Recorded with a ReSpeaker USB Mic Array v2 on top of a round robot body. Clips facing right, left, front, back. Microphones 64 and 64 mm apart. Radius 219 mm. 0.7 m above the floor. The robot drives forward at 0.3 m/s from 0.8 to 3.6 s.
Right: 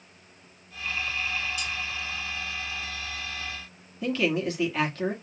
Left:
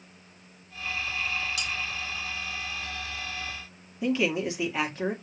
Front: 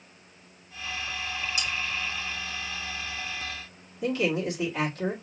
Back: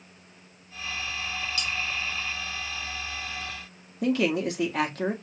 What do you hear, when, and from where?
1.6 s cutlery clinking: 75° left, 1.5 m
4.0 s a man speaking: 165° left, 1.9 m